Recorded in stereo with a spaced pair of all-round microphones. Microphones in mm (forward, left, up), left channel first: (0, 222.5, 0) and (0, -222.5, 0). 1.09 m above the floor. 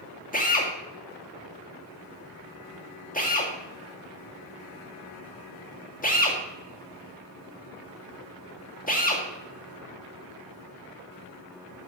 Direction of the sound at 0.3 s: 20° left (ahead or behind).